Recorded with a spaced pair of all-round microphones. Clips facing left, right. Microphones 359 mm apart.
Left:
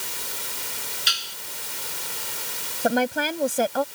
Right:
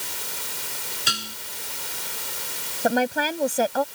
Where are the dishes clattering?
65° right (ahead or behind).